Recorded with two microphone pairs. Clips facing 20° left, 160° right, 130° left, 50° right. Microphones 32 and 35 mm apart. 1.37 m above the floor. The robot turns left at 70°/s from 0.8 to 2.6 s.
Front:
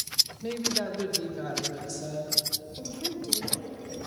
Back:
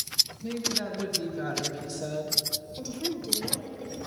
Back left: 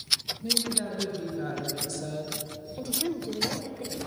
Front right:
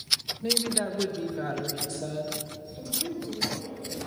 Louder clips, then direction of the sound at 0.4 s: Front 1 dB, front right 2 dB; 25° right.